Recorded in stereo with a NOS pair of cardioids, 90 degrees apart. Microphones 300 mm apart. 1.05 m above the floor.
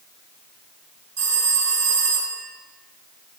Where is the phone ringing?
60° right, 2.5 m.